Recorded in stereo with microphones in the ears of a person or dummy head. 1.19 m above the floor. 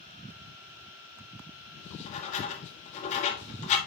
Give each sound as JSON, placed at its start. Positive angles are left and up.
{"t": 1.8, "sound": "writing", "side_deg": 50, "distance_m": 1.7}